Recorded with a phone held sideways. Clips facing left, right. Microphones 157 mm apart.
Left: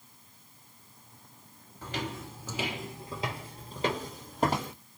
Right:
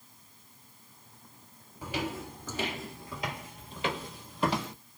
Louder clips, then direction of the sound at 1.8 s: Right 2 dB; 15° right (ahead or behind).